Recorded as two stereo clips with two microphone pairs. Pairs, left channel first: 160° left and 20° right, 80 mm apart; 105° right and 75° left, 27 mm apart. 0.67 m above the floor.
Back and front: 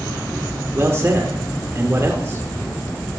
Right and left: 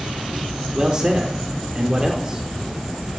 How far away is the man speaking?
About 2 m.